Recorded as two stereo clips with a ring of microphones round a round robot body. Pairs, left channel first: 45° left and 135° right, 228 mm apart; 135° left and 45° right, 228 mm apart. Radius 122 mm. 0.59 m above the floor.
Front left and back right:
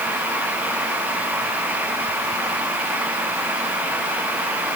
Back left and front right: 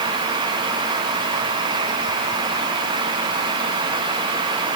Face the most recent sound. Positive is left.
No sound to turn to.